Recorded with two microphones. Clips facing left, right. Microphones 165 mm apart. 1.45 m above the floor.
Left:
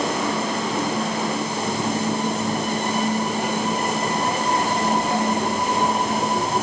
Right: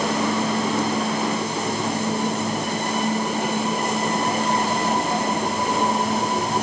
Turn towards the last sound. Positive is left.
No sound to turn to.